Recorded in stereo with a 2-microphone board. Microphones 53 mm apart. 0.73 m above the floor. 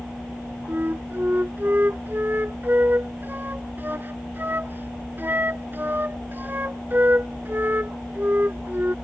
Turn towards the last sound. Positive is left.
turn(degrees=-40)  # may be behind; listen again after turning